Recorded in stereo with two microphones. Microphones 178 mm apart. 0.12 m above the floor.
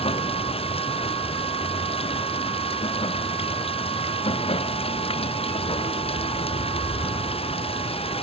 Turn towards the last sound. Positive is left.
turn(degrees=30)  # may be behind; listen again after turning